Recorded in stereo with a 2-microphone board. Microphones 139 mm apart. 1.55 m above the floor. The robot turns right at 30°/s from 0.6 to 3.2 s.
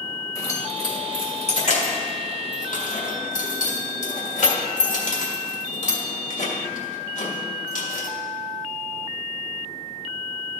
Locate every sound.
0.3 s keys jangling: 25° left (ahead or behind), 1.6 m; by 8.1 s 65° left (ahead or behind), 1.6 m